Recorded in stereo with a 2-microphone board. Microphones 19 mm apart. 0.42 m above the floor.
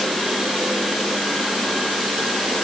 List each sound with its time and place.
Only background noise.